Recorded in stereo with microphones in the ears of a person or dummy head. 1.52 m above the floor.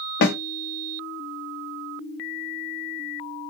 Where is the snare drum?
60° left (ahead or behind), 0.7 m.